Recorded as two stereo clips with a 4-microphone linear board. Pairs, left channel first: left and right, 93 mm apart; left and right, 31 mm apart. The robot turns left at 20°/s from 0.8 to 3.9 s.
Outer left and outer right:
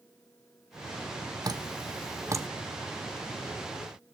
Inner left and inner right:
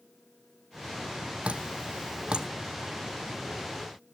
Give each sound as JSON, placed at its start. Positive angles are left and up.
{"t": 1.4, "sound": "dripping", "side_deg": -40, "distance_m": 0.9}